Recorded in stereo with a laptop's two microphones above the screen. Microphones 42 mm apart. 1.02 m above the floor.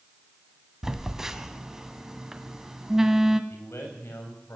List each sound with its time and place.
0.8 s a phone buzzing: 10° right (ahead or behind), 1.6 m
3.5 s a man speaking: 80° left, 6 m